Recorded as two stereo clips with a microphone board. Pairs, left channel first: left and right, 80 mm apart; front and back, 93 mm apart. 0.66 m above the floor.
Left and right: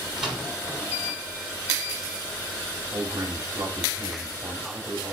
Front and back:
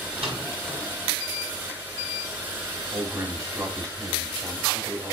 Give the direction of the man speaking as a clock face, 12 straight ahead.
5 o'clock.